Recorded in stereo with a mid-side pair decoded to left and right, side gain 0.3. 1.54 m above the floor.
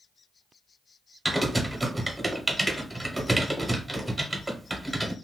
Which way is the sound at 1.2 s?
10° right.